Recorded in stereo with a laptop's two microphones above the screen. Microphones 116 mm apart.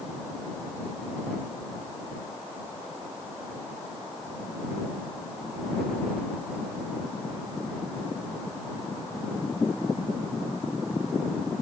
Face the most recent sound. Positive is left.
No sound to turn to.